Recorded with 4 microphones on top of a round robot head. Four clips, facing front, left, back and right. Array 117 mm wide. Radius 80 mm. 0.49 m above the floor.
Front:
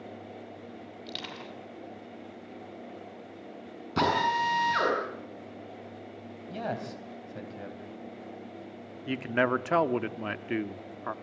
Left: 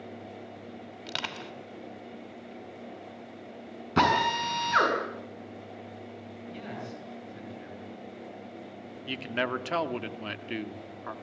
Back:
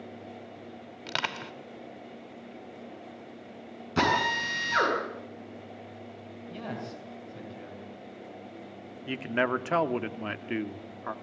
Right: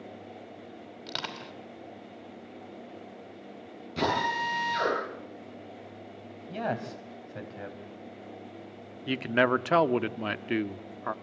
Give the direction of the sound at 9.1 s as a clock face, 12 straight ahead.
3 o'clock.